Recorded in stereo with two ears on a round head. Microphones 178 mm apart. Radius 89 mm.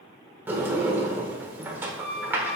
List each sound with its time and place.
0.5 s a sliding door: 10° right (ahead or behind), 1.5 m